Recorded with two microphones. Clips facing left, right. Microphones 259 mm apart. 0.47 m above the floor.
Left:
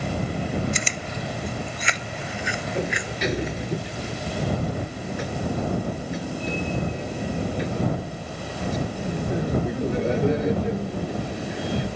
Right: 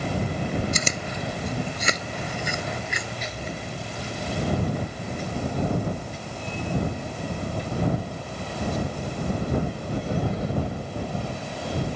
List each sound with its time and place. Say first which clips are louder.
0.7 s chewing: right 1 dB; 45° right (ahead or behind)
2.8 s a sliding door: left 7 dB; 75° left (ahead or behind)